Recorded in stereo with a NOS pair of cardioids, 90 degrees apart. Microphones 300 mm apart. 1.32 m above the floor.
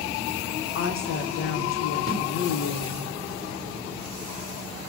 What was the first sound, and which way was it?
A woman speaking, 50° left.